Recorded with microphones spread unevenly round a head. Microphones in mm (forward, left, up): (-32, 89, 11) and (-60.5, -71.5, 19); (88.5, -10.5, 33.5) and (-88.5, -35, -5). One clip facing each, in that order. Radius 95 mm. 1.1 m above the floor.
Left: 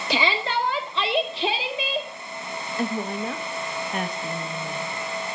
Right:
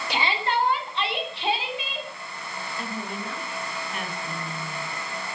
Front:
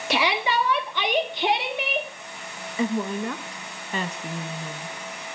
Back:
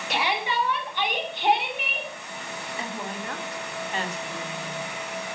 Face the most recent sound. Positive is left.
turn(degrees=25)